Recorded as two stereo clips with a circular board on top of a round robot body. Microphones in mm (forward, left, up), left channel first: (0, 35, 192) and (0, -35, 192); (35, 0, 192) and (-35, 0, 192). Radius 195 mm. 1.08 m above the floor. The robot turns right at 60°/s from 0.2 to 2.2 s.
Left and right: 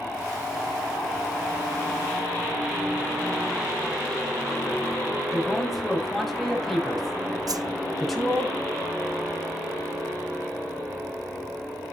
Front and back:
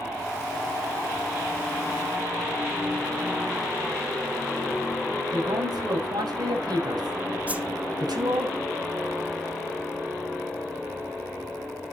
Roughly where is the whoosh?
Right.